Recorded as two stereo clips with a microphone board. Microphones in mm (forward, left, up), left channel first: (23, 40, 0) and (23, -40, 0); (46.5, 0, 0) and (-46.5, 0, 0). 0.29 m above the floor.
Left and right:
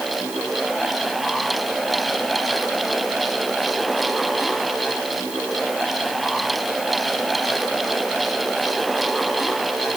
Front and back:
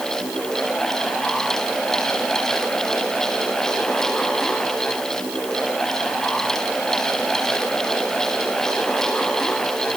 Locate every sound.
Only background noise.